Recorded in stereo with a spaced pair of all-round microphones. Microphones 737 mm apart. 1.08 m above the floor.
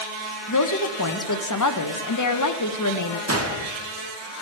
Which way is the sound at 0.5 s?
25° left (ahead or behind).